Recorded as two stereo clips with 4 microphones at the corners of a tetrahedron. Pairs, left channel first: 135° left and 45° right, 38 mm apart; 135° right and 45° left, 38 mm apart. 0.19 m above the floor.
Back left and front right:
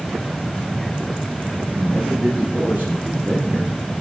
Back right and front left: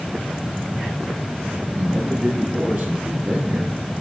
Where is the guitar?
No guitar in this recording.